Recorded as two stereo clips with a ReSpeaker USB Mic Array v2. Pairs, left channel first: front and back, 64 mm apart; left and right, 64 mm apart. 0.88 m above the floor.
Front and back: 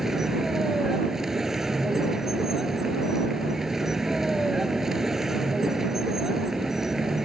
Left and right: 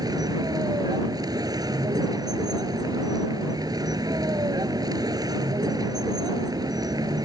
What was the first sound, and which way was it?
A vehicle, 95° right.